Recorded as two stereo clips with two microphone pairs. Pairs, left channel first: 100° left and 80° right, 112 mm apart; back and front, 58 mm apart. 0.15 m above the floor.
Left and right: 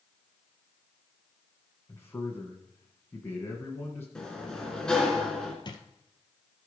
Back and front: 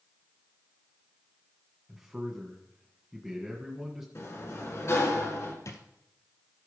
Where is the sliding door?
175° right, 2 m.